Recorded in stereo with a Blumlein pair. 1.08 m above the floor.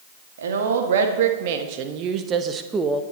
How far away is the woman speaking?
About 2.5 m.